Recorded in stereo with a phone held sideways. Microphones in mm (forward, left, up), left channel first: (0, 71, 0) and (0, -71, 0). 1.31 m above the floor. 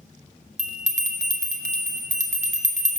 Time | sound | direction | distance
0.6 | a bell | 55° right (ahead or behind) | 0.7 m